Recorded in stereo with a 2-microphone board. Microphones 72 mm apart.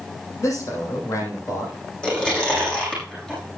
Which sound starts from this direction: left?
A man speaking, at 0.4 s.